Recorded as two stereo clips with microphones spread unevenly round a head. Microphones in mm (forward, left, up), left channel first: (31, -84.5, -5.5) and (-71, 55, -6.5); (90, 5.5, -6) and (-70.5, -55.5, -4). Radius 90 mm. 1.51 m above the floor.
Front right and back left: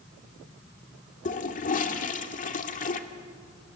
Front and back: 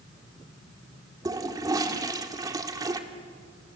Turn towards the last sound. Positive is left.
turn(degrees=-90)